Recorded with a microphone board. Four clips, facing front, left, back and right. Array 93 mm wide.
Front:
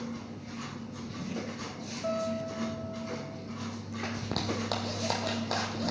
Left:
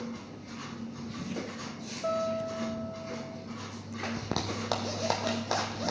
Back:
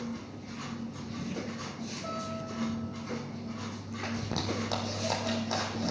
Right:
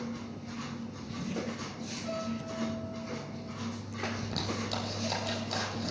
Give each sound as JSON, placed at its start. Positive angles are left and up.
{"t": 2.0, "sound": "a guitar", "azimuth_deg": 80, "distance_m": 7.0}
{"t": 4.2, "sound": "a zipper", "azimuth_deg": 75, "distance_m": 2.5}